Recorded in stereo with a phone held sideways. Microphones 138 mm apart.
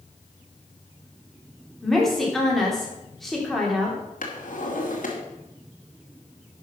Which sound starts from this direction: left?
A drawer, at 4.2 s.